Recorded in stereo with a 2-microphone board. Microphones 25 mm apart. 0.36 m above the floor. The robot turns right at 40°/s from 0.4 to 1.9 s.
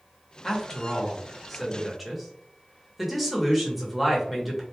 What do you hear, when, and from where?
0.4 s a man speaking: 15° left (ahead or behind), 0.8 m; by 4.6 s centre (ahead or behind), 0.8 m